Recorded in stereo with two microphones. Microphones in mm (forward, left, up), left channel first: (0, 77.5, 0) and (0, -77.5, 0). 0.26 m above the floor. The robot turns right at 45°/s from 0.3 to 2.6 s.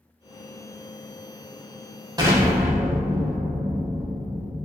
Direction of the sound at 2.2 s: 25° right (ahead or behind).